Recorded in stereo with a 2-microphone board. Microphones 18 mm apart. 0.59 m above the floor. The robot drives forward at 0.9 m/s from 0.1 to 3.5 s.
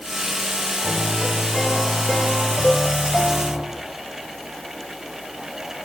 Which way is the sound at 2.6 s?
80° left.